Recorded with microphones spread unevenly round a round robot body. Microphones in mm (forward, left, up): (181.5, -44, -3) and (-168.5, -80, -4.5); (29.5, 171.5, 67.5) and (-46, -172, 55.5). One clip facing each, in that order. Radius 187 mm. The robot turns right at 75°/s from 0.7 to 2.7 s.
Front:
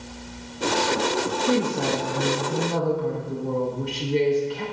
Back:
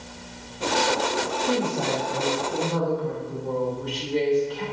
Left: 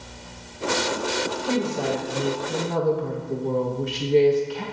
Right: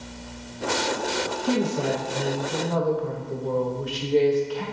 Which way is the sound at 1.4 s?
55° right.